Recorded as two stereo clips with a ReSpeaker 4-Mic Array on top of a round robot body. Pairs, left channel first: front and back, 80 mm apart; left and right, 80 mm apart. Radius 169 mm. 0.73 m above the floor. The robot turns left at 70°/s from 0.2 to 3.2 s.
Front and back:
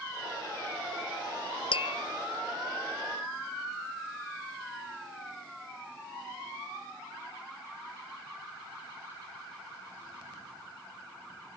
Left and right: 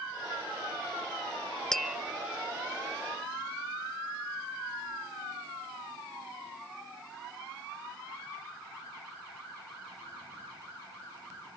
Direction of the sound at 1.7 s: 5° left.